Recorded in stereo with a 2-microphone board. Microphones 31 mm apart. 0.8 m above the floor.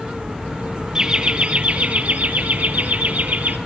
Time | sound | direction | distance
0.9 | laughter | 20° right (ahead or behind) | 0.9 m